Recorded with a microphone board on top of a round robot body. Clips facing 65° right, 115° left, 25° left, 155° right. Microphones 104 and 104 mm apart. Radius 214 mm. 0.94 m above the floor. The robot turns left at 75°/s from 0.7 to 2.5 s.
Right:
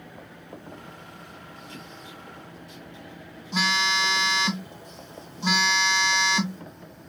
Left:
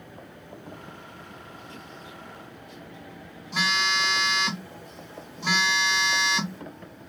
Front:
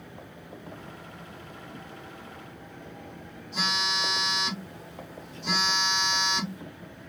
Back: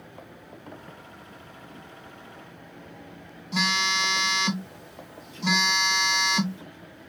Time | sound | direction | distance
3.5 | a phone buzzing | 140° right | 0.7 m